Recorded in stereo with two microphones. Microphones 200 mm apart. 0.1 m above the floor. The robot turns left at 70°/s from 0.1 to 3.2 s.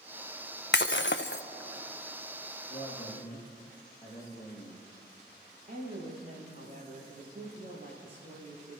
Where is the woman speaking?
45° right (ahead or behind), 6.5 m.